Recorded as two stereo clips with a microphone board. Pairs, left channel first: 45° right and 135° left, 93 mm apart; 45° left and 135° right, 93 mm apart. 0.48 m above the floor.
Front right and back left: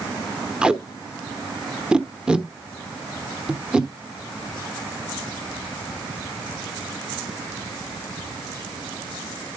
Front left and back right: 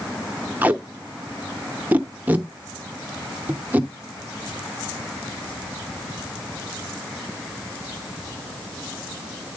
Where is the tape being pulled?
165° right, 0.9 m.